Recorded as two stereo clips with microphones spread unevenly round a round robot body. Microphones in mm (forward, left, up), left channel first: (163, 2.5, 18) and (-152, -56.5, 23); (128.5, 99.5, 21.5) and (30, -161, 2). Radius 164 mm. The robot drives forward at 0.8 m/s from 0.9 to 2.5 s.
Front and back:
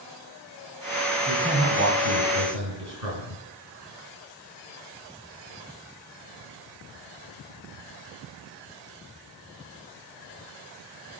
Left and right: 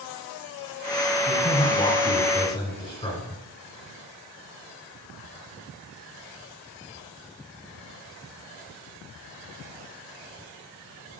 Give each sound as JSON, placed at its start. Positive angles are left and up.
{"t": 1.3, "sound": "a man speaking", "azimuth_deg": 140, "distance_m": 2.0}